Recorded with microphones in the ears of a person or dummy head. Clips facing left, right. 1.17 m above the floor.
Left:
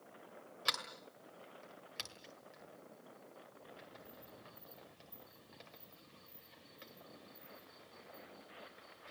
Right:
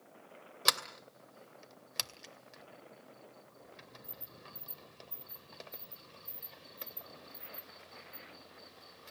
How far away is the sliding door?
About 2 m.